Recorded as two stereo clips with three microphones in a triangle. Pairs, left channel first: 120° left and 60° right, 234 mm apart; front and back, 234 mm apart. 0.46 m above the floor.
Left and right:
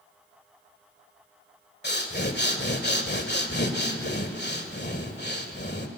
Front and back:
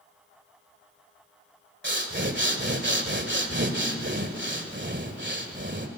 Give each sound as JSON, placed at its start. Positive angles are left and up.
{"t": 1.8, "sound": "breathing", "azimuth_deg": 155, "distance_m": 1.9}